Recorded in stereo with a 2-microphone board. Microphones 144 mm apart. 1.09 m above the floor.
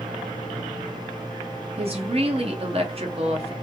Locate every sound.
1.8 s a woman speaking: 45° right (ahead or behind), 1.1 m